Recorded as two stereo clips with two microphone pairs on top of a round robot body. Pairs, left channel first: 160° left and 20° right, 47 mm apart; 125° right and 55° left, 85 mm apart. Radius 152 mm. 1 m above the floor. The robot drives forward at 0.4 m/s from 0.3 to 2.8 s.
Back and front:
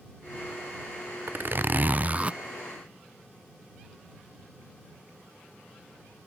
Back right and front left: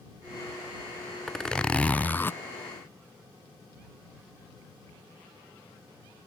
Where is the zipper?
45° right; by 2.4 s 85° right.